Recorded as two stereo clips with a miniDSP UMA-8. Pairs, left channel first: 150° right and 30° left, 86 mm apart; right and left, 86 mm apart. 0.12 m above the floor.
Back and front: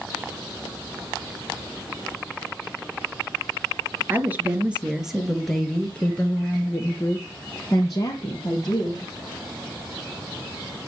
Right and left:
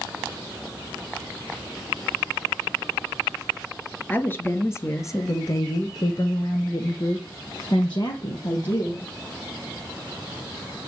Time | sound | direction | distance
4.1 | a woman speaking | 25° right | 2 m